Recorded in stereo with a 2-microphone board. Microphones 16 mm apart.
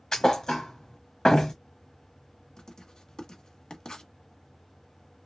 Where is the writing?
40° left (ahead or behind), 1.1 m.